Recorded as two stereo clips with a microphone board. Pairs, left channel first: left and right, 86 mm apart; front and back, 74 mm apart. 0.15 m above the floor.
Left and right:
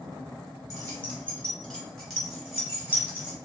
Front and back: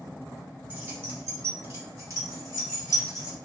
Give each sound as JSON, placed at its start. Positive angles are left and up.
{"t": 0.7, "sound": "keys jangling", "azimuth_deg": 130, "distance_m": 1.4}